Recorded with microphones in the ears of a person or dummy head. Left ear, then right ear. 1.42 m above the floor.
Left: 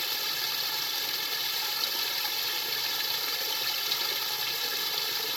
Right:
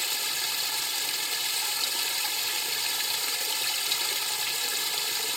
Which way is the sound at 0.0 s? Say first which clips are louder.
Right 1 dB; 10° right (ahead or behind).